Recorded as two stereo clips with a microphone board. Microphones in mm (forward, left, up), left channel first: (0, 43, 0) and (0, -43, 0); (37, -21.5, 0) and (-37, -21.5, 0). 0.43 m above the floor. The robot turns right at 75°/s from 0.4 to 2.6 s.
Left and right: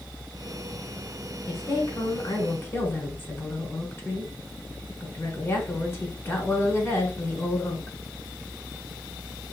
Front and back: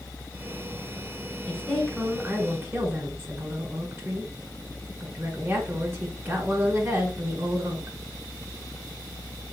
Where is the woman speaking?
55° left, 1.5 m; by 7.9 s 140° left, 1.5 m.